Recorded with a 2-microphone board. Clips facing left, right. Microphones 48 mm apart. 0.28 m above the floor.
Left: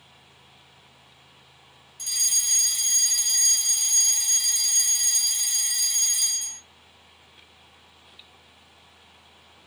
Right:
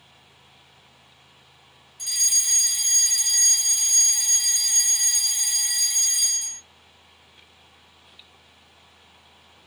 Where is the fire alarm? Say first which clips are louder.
Right 2 dB; 10° right (ahead or behind), 2.5 m.